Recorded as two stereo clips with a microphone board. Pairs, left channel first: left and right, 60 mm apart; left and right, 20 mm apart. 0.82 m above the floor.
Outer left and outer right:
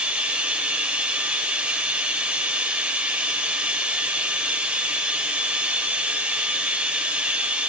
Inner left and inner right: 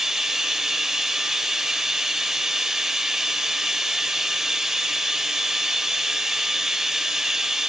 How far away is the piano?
No piano in this recording.